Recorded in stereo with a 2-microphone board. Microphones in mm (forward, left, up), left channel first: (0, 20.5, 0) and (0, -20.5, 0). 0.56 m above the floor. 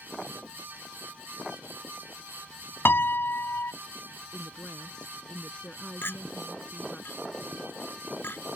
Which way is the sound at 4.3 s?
25° left (ahead or behind).